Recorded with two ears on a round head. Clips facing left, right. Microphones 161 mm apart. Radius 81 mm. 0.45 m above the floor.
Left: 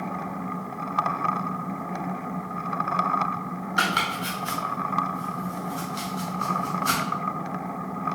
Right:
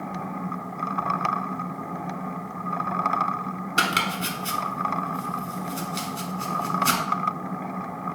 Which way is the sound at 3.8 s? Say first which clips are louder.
Right 1 dB; 35° right (ahead or behind).